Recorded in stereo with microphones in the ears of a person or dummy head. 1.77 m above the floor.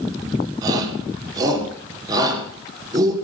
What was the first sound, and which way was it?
A shout, 20° right (ahead or behind).